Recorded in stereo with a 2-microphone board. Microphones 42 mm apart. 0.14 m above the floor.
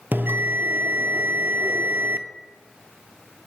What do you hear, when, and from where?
0.1 s a bell: 60° right (ahead or behind), 0.6 m